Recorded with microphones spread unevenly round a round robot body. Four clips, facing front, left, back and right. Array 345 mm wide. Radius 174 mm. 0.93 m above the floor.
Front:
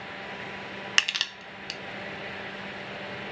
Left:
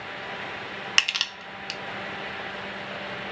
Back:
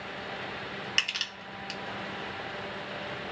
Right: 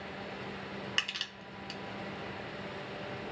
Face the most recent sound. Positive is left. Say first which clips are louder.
# left 9 dB, front 4 dB
turn(degrees=40)